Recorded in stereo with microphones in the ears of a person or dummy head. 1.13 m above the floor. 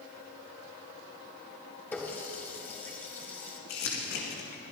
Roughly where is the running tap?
Centre.